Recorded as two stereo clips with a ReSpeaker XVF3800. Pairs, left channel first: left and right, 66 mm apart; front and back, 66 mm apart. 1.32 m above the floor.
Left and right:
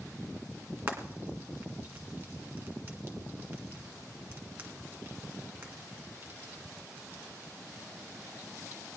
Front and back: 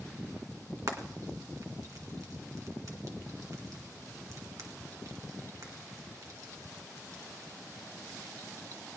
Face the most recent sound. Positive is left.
turn(degrees=-140)